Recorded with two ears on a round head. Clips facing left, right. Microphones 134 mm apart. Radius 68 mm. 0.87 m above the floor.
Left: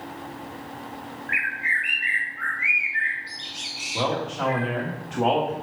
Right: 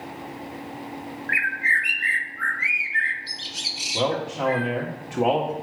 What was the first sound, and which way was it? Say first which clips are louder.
A bird: right 3 dB; 40° right (ahead or behind).